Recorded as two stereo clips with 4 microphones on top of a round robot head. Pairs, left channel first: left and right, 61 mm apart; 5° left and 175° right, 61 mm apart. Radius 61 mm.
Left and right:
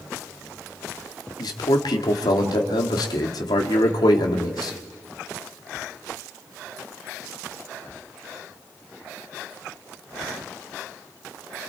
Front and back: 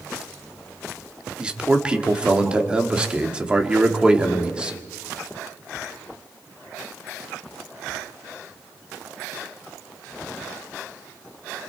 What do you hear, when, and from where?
1.4 s a man speaking: 110° left, 2 m